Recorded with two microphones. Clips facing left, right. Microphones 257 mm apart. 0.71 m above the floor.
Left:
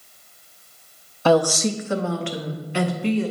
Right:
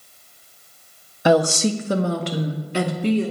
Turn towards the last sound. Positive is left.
turn(degrees=-45)  # may be behind; listen again after turning